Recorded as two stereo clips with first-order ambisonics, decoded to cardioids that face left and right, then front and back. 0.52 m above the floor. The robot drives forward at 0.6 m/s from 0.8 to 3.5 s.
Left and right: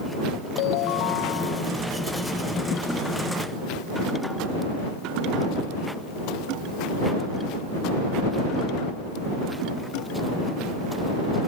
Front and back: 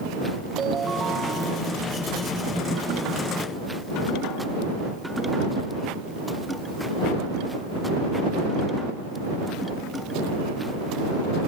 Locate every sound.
0.6 s a ringtone: 110° left; by 1.7 s 115° left